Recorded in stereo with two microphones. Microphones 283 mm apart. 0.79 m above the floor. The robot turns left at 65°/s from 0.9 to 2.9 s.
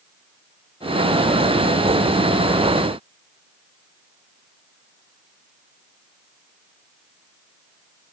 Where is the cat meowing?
No cat meowing in this recording.